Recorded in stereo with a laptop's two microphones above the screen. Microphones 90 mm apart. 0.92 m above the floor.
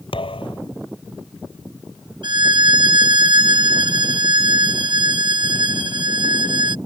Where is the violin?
65° right (ahead or behind).